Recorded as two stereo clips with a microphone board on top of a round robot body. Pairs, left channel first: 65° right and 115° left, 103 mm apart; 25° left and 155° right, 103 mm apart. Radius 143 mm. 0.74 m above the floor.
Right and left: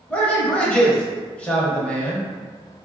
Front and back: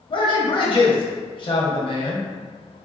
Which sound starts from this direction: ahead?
A man speaking, at 0.1 s.